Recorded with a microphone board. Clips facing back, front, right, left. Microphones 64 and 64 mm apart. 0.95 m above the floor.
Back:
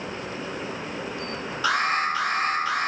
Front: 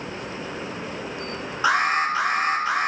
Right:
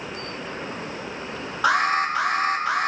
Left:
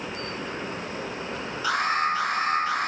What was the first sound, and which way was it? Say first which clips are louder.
An alarm: front 3 dB, right 4 dB; 65° right.